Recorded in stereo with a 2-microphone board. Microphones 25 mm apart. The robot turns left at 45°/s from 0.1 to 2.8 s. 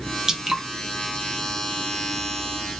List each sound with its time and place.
0.3 s dripping: 20° right (ahead or behind), 0.7 m; by 0.6 s 15° right (ahead or behind), 0.7 m